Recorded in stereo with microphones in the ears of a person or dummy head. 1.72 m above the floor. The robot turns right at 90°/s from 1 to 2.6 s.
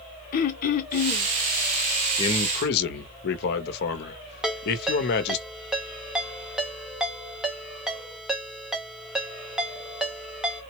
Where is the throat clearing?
50° left (ahead or behind), 0.5 m; by 1.3 s 25° left (ahead or behind), 0.5 m.